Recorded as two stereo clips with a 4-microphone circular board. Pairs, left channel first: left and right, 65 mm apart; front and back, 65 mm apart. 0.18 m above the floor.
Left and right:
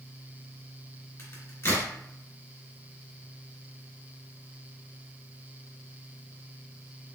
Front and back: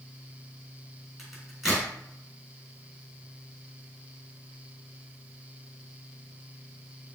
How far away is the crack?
About 2 m.